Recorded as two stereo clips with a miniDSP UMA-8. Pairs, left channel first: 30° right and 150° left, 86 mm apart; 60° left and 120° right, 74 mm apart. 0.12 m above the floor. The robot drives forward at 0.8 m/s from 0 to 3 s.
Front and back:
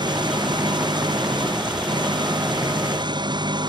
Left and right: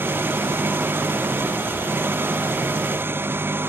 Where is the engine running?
Straight behind.